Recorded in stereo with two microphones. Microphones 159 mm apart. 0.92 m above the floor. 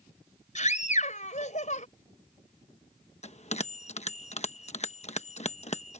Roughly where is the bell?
Left.